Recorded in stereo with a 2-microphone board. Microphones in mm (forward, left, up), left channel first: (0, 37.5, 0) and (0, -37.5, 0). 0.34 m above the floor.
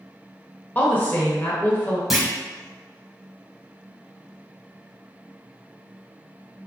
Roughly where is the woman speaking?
Left.